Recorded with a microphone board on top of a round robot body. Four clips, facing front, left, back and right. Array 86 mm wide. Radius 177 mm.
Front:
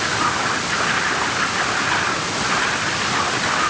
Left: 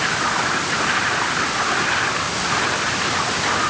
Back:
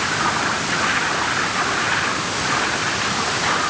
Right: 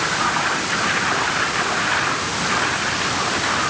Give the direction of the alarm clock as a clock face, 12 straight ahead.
I don't hear an alarm clock.